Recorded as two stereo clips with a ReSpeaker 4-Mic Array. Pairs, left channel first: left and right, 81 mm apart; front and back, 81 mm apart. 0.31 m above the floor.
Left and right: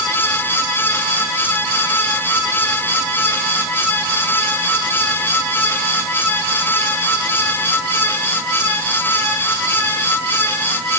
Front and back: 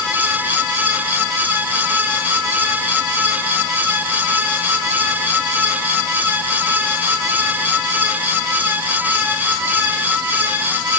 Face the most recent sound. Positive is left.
No sound to turn to.